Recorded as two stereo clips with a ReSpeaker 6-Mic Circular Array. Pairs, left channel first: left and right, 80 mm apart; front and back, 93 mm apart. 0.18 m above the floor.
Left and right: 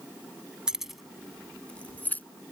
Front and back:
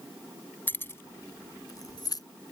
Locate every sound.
0.7 s keys jangling: 25° right; by 2.2 s 30° left